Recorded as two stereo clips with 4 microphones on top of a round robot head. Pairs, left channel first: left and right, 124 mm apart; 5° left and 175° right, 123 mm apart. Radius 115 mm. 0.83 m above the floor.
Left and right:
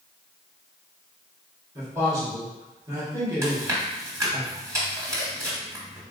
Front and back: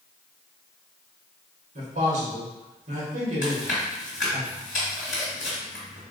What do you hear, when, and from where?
1.8 s a man speaking: 160° right, 1.4 m
3.4 s chewing: 30° right, 0.9 m